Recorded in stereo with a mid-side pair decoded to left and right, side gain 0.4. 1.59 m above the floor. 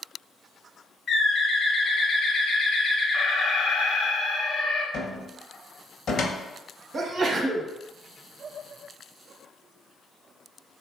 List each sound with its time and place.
1.1 s a bird: 60° left, 0.5 m
3.1 s an alarm: 70° left, 0.9 m
4.9 s a cupboard door: 60° left, 0.7 m
6.9 s a sneeze: 50° right, 0.8 m